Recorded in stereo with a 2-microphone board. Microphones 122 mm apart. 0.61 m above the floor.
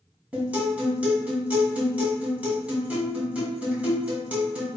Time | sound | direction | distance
0.3 | a guitar | 10° right (ahead or behind) | 1.7 m